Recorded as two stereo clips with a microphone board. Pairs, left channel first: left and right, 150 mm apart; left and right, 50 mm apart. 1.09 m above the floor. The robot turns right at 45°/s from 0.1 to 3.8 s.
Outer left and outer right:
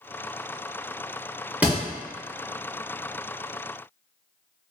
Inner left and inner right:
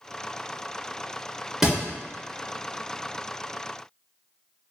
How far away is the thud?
About 0.8 m.